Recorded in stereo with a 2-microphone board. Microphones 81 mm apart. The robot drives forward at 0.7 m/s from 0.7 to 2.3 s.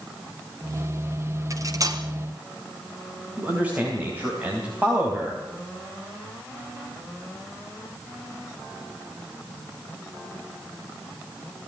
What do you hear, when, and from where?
1.5 s cutlery clinking: 40° right (ahead or behind), 2.5 m; by 2.0 s 45° right (ahead or behind), 2.5 m
3.4 s a man speaking: 20° right (ahead or behind), 3.5 m